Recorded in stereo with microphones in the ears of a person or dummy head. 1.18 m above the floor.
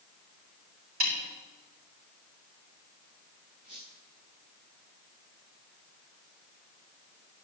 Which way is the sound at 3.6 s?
35° right (ahead or behind).